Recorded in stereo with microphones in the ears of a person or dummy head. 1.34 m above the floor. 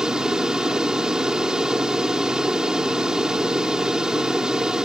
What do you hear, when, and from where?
0.0 s an aircraft: 5° right (ahead or behind)